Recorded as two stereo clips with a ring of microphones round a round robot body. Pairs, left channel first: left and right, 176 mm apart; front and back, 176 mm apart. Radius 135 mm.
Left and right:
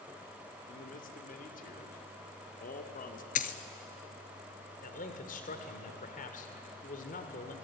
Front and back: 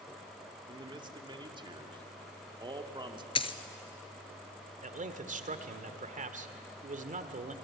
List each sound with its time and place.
0.7 s a man speaking: 120° left, 2.0 m
3.4 s a dropped coin: 55° left, 1.0 m
4.8 s a man speaking: 140° left, 1.7 m